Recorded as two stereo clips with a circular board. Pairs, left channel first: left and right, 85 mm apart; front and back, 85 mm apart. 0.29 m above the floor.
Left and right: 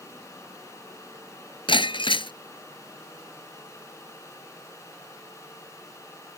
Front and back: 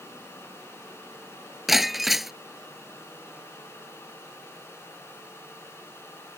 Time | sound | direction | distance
1.7 | breaking glass | 90° left | ?